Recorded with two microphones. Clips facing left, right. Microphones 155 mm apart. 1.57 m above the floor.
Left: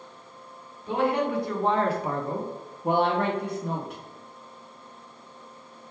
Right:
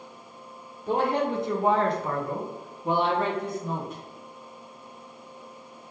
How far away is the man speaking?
About 0.9 m.